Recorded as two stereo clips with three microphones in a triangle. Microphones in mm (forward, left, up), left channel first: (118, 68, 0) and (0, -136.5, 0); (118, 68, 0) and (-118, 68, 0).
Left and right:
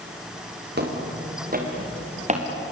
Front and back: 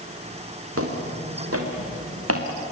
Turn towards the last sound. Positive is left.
turn(degrees=180)